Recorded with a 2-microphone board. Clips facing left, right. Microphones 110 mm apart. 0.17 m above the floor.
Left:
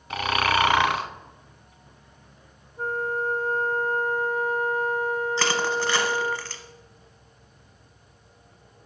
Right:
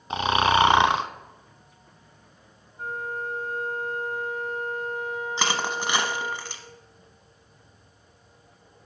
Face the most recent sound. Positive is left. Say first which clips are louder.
# left 3 dB
turn(degrees=-15)  # may be behind; listen again after turning